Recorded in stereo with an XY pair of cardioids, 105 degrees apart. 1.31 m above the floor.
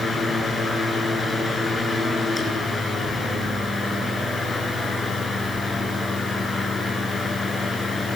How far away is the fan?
About 8 m.